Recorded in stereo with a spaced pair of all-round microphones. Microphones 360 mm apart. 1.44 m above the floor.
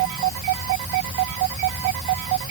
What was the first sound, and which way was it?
Only background noise.